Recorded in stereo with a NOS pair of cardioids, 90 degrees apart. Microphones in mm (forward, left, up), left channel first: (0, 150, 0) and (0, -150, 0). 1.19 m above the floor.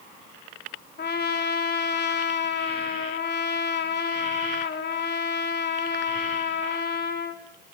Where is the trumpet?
35° left, 3.5 m.